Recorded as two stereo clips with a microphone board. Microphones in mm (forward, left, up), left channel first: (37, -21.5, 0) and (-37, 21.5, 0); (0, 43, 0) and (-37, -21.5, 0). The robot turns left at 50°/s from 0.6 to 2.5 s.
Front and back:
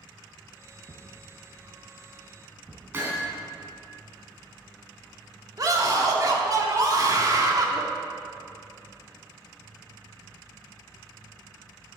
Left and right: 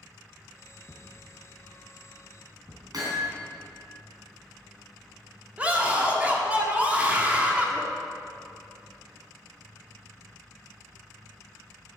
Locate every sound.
0.9 s a thud: 60° right, 1.8 m; by 3.0 s 140° right, 1.8 m
2.9 s hammering: 150° right, 3.5 m
5.6 s a scream: 175° left, 1.7 m